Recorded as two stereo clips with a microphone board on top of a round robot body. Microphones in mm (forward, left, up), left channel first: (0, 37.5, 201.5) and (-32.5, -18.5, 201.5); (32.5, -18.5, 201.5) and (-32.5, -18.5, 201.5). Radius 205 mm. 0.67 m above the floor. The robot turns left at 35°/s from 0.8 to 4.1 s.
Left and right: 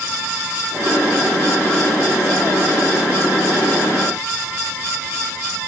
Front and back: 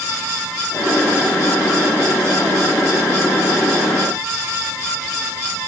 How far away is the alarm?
I don't hear an alarm.